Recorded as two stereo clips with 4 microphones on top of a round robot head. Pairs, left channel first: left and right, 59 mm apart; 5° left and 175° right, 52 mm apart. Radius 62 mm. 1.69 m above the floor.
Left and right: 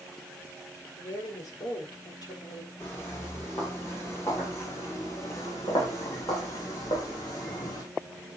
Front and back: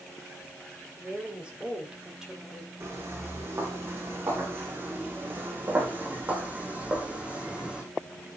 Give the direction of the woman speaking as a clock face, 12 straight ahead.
8 o'clock.